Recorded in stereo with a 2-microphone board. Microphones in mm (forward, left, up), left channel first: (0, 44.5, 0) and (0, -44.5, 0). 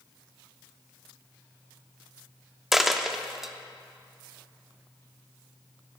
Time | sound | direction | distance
2.7 | a dropped coin | 5° right (ahead or behind) | 0.6 m